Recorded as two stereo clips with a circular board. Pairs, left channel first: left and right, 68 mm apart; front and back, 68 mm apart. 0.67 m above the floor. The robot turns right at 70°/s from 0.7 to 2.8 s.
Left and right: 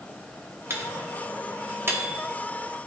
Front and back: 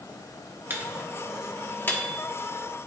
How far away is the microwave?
About 1.3 m.